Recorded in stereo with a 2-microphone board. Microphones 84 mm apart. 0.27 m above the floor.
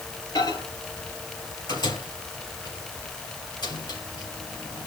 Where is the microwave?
65° left (ahead or behind), 3.5 m.